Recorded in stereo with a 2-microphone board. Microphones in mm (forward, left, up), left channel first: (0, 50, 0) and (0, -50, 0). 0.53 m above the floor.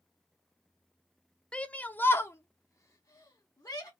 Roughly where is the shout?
Centre.